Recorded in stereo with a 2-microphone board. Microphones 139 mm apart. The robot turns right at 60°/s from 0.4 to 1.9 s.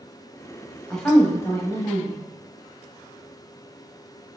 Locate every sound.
0.9 s a woman speaking: centre (ahead or behind), 1.0 m; by 2.2 s 25° left (ahead or behind), 1.0 m